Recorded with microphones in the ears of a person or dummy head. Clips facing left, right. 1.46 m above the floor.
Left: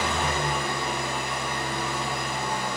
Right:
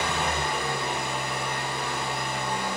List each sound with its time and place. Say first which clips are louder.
0.0 s an engine running: left 1 dB; 25° left (ahead or behind), 1.4 m